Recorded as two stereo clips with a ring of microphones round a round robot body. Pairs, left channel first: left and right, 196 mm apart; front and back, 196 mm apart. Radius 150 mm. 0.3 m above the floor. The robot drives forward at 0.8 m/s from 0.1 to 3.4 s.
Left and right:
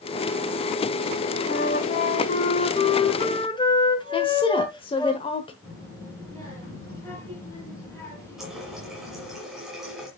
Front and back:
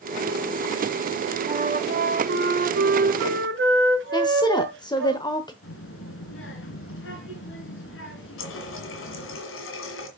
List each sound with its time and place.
1.5 s a flute: 120° left, 1.0 m; by 5.1 s 160° left, 2 m
4.1 s a woman speaking: 50° left, 1.1 m
5.6 s a child speaking: 10° left, 4 m
8.4 s a running tap: straight ahead, 1.8 m